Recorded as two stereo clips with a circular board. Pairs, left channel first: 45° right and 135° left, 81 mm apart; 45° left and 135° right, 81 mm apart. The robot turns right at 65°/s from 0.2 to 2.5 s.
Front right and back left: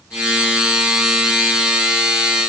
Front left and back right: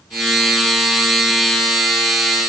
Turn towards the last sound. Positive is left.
No sound to turn to.